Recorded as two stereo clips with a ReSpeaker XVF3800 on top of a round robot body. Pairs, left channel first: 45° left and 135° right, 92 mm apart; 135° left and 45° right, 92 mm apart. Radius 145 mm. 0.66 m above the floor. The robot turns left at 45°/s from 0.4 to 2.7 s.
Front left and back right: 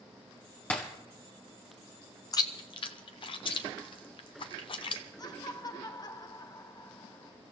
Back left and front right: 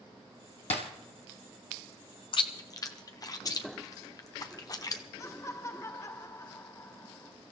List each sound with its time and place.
0.7 s breaking glass: 120° left, 1.6 m; by 0.8 s 115° left, 1.6 m
2.3 s chewing: 100° left, 0.7 m; by 5.0 s 80° left, 0.7 m
5.2 s laughter: 80° left, 0.9 m